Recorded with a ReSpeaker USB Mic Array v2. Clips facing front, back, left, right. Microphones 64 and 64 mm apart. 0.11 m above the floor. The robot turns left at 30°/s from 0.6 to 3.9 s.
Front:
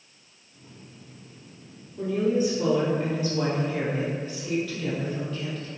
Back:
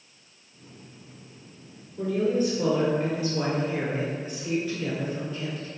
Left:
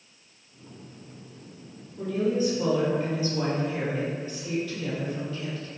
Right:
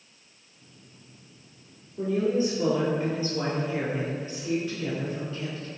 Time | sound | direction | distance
2.0 | a woman speaking | 60° right | 1.4 m